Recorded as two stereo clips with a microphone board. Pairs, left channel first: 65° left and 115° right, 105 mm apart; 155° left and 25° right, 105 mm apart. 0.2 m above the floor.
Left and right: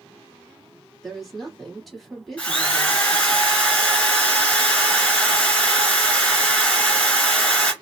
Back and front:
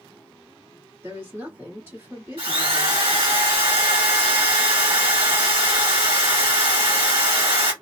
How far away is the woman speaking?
About 1.7 m.